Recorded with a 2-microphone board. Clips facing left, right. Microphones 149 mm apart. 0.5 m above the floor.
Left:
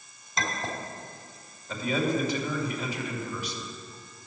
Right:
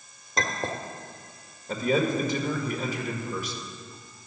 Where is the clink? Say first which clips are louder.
Right 3 dB; 50° right (ahead or behind), 1.2 m.